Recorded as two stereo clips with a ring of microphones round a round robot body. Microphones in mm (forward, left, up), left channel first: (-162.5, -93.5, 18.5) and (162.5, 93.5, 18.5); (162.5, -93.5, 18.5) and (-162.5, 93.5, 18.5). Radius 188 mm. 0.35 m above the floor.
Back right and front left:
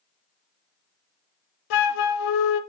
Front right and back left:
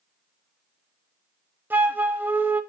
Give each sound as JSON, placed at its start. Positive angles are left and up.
{"t": 1.7, "sound": "a flute", "azimuth_deg": -125, "distance_m": 0.9}